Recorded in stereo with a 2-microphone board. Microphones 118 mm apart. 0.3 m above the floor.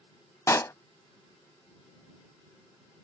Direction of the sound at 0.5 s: 25° left (ahead or behind).